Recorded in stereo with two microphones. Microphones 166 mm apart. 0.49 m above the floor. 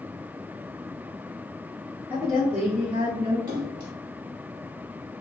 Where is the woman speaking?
30° right (ahead or behind), 1.3 m.